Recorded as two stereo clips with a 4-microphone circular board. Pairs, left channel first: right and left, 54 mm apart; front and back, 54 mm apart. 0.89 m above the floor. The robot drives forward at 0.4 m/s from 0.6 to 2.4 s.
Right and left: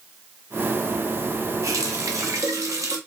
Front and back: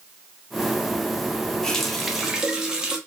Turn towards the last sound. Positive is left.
turn(degrees=105)